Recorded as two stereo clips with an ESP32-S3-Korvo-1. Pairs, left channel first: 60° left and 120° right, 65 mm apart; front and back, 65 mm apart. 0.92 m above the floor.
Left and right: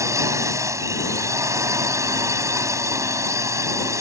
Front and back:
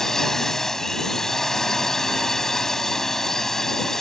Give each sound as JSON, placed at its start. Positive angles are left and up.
{"t": 0.0, "sound": "a drone", "azimuth_deg": -85}